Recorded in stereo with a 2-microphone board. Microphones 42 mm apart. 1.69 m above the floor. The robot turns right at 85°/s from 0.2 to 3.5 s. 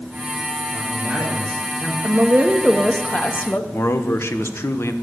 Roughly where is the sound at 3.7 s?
Left.